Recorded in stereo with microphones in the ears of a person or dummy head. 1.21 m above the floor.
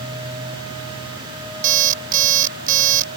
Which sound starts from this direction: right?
An alarm clock, at 1.6 s.